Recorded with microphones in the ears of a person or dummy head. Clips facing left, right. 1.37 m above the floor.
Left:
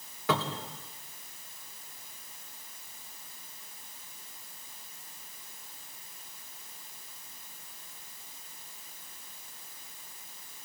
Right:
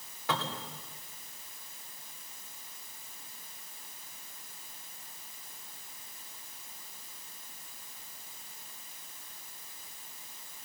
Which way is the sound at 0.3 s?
65° left (ahead or behind).